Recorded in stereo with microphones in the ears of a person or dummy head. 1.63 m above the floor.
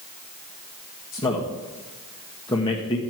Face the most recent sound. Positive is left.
turn(degrees=20)  # may be behind; listen again after turning